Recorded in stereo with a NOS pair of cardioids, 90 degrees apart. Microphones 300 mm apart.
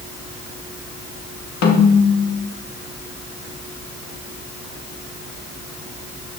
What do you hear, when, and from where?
1.6 s a snare drum: 65° left, 2.0 m